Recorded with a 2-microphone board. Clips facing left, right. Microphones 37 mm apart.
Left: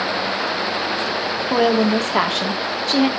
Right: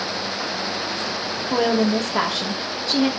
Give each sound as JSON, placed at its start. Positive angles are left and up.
{"t": 1.5, "sound": "a woman speaking", "side_deg": 50, "distance_m": 1.5}